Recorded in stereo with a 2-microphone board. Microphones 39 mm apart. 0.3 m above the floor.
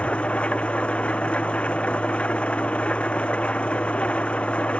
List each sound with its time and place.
0.0 s an engine running: 30° left (ahead or behind)